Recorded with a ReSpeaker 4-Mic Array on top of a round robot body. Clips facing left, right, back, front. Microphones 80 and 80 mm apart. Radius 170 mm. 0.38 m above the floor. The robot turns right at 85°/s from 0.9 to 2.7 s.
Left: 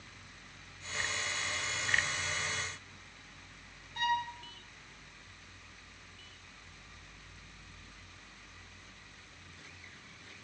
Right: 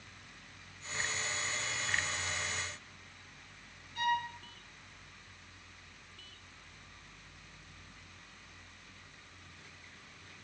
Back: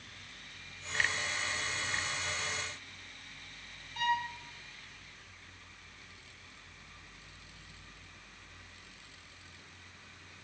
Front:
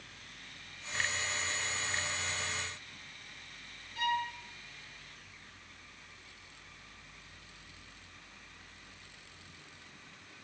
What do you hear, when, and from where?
4.0 s a violin: 140° left, 4 m